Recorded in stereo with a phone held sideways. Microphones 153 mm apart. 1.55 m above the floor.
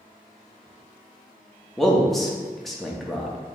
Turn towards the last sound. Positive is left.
turn(degrees=0)  # may be behind; listen again after turning